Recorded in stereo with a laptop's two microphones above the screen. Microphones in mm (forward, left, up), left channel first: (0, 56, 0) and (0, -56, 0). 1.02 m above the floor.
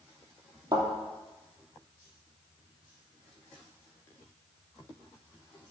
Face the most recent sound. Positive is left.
turn(degrees=-35)  # may be behind; listen again after turning